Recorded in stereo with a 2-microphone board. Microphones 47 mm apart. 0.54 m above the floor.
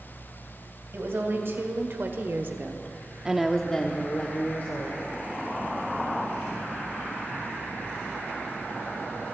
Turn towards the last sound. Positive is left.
turn(degrees=45)  # may be behind; listen again after turning